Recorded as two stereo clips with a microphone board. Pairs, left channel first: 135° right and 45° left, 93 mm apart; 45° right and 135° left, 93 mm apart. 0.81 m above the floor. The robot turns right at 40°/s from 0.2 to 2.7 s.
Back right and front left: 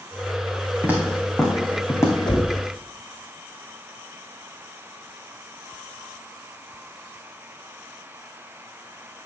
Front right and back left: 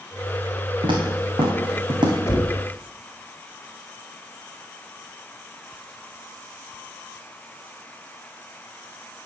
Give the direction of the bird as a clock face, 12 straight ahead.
No bird in this recording.